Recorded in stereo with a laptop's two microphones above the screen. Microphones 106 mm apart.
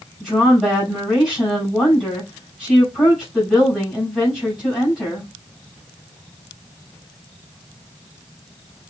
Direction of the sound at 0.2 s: 10° right (ahead or behind).